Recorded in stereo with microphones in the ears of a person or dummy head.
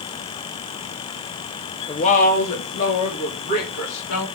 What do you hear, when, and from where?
1.9 s a woman speaking: 35° left (ahead or behind), 1.1 m; by 4.3 s 65° left (ahead or behind), 4 m